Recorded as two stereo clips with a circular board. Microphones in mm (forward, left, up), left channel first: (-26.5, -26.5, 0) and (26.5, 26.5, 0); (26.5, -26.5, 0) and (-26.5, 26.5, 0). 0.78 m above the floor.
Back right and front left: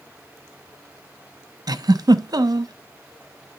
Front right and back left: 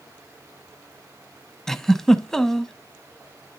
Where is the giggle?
40° left, 0.7 m.